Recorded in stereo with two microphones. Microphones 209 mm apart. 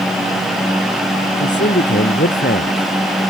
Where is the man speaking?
55° left (ahead or behind).